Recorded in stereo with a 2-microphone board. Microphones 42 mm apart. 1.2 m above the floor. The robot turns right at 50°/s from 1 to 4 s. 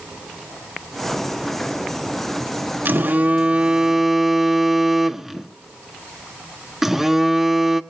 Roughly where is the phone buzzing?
Right.